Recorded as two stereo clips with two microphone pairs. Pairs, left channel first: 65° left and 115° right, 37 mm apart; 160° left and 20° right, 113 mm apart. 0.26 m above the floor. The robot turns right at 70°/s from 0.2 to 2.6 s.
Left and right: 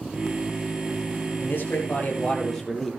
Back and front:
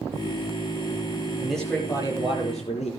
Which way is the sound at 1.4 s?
65° left.